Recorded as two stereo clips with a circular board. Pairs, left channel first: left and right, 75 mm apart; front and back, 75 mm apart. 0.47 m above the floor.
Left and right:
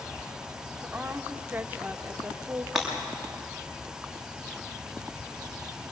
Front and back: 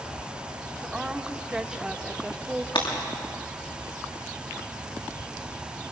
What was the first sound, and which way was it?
A woman speaking, 115° right.